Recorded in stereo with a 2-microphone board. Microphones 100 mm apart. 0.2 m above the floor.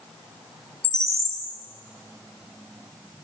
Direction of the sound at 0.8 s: 30° right (ahead or behind).